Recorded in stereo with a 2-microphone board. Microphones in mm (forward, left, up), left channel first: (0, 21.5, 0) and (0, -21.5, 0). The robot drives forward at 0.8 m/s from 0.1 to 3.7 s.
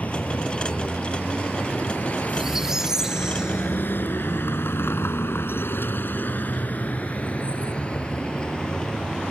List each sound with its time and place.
0.0 s a vehicle: 40° left (ahead or behind); by 9.3 s 15° left (ahead or behind)
2.3 s a squeak: 15° right (ahead or behind); by 4.5 s 20° right (ahead or behind)